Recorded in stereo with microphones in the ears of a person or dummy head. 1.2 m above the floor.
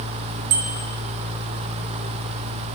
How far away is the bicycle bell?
About 3.5 m.